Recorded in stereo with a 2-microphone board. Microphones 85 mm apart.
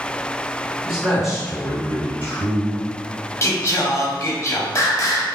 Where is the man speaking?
45° left (ahead or behind), 1.9 m; by 2.8 s 15° left (ahead or behind), 1.4 m.